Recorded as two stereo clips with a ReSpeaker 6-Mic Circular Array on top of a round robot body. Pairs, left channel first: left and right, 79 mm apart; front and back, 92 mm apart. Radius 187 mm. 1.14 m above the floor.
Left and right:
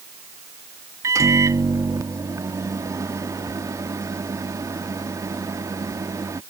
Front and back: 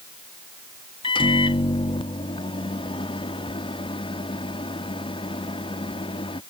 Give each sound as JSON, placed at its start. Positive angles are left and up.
{"t": 1.0, "sound": "a microwave", "azimuth_deg": -35}